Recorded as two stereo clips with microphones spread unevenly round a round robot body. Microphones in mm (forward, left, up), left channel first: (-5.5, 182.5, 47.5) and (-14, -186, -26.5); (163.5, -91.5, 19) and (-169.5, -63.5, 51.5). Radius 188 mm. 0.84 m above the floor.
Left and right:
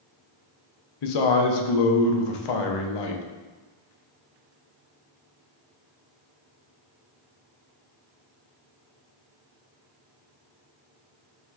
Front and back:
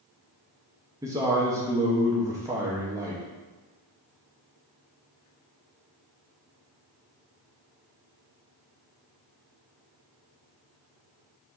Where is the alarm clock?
I don't hear an alarm clock.